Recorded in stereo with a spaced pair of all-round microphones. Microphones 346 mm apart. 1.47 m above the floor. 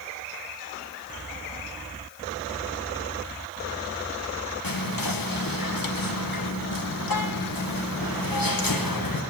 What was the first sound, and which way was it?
Whispering, 75° left (ahead or behind).